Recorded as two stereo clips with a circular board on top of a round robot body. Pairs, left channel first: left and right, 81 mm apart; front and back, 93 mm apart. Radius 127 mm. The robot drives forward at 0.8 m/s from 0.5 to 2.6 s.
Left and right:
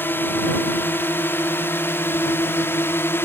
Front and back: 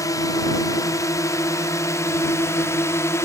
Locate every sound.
0.0 s a drone: 35° left; by 3.3 s 45° left